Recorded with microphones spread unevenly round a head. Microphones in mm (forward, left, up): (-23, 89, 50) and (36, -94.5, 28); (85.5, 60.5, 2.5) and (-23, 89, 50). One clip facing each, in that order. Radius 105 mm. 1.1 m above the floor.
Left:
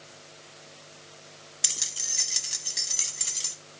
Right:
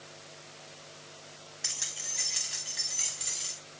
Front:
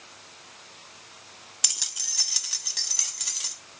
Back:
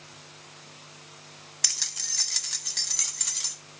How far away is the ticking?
I don't hear ticking.